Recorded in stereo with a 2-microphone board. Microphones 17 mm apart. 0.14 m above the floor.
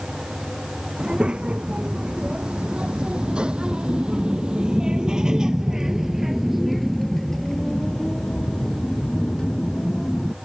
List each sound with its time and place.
1.0 s a child speaking: 75° right (ahead or behind); by 10.3 s 60° left (ahead or behind)